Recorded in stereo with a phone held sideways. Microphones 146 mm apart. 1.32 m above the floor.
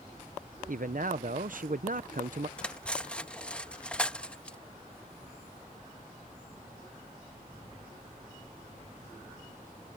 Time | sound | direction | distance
0.7 | a man speaking | 65° right (ahead or behind) | ?
2.6 | cutlery clinking | 5° left (ahead or behind) | ?